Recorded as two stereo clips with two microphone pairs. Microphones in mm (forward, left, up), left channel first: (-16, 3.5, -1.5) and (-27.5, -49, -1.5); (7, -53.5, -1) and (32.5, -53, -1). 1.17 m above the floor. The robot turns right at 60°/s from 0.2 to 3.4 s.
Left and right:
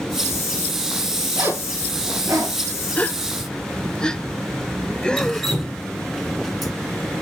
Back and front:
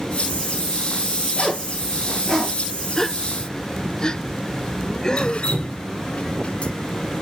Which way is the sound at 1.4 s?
150° right.